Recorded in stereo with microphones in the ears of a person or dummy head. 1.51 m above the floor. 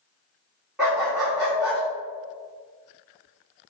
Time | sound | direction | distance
0.8 | a dog barking | centre (ahead or behind) | 1.4 m